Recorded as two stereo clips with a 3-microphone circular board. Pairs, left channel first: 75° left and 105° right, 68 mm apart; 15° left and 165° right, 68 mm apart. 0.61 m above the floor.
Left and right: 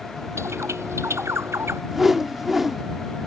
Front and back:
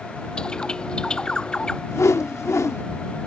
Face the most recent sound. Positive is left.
turn(degrees=-20)